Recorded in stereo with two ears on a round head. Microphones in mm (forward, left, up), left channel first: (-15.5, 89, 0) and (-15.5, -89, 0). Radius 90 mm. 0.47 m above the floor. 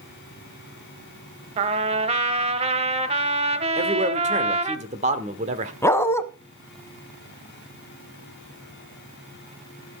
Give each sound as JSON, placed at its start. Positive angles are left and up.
{"t": 1.6, "sound": "a trumpet", "side_deg": -30, "distance_m": 0.7}
{"t": 3.8, "sound": "a man speaking", "side_deg": -35, "distance_m": 1.2}
{"t": 5.8, "sound": "a dog barking", "side_deg": 15, "distance_m": 0.8}